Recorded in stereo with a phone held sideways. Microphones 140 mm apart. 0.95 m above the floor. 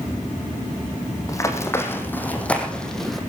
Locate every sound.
1.3 s running footsteps: 25° left (ahead or behind), 3 m; by 3.2 s centre (ahead or behind), 3 m